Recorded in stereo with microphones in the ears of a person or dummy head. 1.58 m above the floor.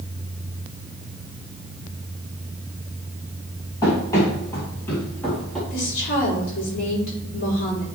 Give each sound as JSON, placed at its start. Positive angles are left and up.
{"t": 3.8, "sound": "running footsteps", "side_deg": 20, "distance_m": 2.5}
{"t": 5.7, "sound": "a woman speaking", "side_deg": 55, "distance_m": 3.0}